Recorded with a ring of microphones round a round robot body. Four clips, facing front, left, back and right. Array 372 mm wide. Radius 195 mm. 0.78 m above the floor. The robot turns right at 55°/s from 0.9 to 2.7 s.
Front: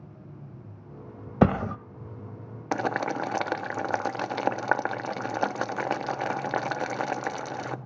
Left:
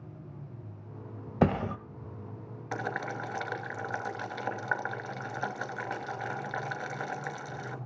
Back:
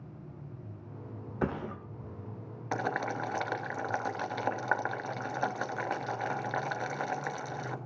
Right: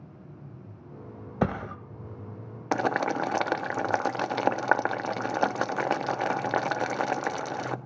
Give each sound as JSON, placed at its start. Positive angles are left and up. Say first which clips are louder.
{"t": 1.4, "sound": "a thud", "louder": "left 2 dB, front 11 dB", "azimuth_deg": 5, "distance_m": 1.1}
{"t": 2.7, "sound": "boiling", "louder": "right 9 dB, front 5 dB", "azimuth_deg": -60, "distance_m": 1.1}